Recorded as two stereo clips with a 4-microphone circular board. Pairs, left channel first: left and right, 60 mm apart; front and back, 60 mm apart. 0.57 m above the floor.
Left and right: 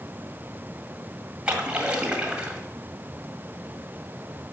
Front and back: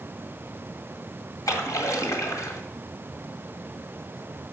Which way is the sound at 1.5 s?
20° right.